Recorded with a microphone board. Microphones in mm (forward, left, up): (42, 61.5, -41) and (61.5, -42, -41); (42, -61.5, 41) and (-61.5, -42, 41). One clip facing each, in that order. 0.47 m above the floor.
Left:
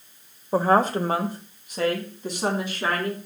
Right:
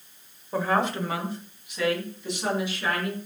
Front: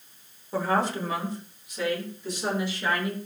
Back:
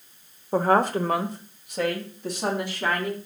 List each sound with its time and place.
0.5 s a woman speaking: 140° left, 1.1 m; by 3.1 s 145° left, 4 m